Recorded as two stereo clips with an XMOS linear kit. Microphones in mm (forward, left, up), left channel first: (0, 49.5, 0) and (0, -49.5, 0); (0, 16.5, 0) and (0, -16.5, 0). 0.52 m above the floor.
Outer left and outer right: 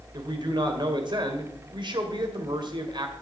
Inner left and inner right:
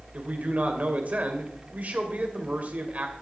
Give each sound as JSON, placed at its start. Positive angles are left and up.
{"t": 0.1, "sound": "a man speaking", "side_deg": -50, "distance_m": 2.0}